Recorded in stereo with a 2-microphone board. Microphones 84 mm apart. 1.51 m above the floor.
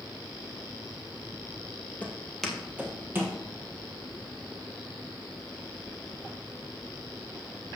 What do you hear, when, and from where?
2.0 s footsteps: 20° left (ahead or behind), 1.8 m; by 3.4 s 30° right (ahead or behind), 2.5 m